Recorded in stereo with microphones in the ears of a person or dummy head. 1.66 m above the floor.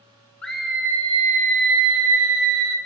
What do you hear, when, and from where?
0.4 s a scream: 10° left (ahead or behind), 0.9 m; by 2.8 s 80° right, 1.6 m